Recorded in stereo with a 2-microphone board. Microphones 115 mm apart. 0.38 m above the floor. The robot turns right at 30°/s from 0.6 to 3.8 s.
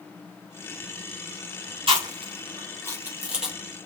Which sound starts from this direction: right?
Chewing, at 1.9 s.